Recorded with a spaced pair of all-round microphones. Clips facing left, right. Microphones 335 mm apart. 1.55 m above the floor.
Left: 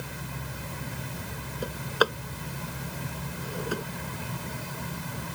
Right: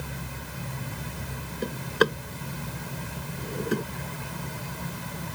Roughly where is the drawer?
Right.